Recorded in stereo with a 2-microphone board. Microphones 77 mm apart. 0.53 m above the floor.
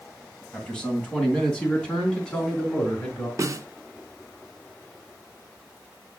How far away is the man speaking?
About 3 m.